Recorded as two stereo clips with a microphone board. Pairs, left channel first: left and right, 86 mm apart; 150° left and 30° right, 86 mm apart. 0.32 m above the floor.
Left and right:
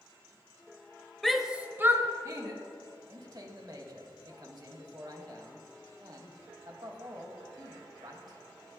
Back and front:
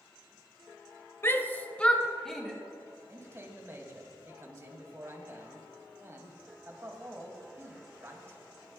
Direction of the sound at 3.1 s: 80° right.